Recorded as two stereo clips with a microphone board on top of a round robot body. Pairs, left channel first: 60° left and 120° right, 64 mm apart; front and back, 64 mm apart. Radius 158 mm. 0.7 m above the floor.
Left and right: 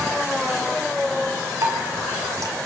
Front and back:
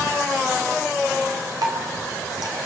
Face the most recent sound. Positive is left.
turn(degrees=-160)